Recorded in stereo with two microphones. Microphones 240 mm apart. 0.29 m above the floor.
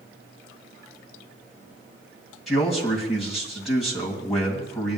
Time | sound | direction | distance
2.5 | a man speaking | centre (ahead or behind) | 2.5 m